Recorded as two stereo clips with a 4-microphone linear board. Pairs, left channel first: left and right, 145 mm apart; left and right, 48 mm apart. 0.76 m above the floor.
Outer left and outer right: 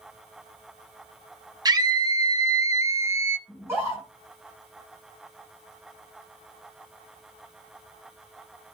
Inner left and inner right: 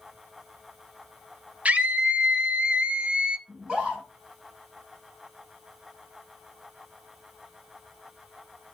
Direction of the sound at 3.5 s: 15° right (ahead or behind).